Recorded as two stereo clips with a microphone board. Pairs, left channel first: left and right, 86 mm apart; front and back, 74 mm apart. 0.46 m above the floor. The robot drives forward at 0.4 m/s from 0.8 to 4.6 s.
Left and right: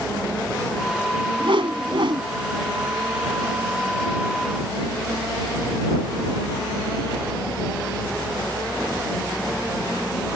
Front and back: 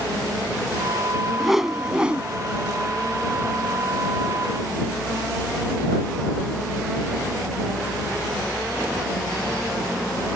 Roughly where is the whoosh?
Right.